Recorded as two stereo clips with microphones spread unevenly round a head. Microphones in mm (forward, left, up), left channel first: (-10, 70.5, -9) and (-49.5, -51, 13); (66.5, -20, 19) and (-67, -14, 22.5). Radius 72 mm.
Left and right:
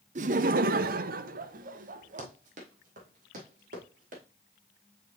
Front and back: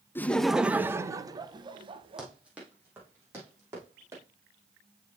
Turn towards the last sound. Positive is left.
turn(degrees=-115)